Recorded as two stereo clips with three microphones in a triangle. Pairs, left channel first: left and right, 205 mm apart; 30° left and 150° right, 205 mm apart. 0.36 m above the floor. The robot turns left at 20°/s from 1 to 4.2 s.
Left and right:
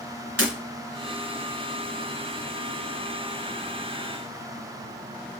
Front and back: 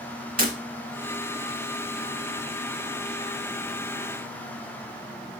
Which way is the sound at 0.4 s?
105° right.